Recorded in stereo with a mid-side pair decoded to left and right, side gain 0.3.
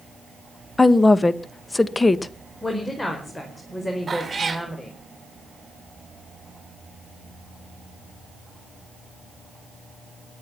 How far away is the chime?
I don't hear a chime.